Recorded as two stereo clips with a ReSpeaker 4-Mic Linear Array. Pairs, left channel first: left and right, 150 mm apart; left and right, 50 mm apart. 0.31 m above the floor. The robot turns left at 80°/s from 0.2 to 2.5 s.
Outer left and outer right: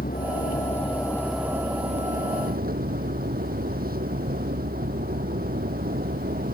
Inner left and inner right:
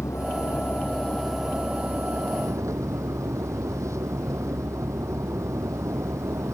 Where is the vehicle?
95° left; by 6.5 s 90° right.